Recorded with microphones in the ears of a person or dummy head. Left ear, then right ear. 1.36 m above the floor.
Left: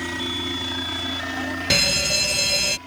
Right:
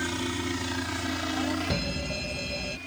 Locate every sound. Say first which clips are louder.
0.0 s a helicopter: left 4 dB; 10° left (ahead or behind); by 2.9 s centre (ahead or behind)
1.7 s a fire alarm: left 12 dB; 60° left (ahead or behind)